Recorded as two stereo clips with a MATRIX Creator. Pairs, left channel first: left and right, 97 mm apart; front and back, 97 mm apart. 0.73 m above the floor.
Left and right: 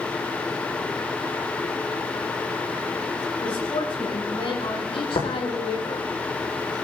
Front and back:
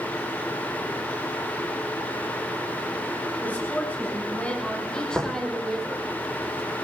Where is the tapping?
85° left, 7.5 m.